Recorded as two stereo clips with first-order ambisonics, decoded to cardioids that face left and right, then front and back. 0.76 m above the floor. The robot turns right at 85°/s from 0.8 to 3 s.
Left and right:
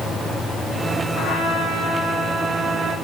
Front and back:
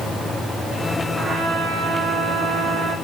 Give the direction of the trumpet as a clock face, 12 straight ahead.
9 o'clock.